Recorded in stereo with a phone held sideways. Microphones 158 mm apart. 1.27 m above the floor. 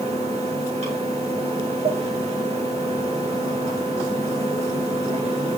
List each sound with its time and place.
0.0 s a fan: 45° right (ahead or behind), 4.5 m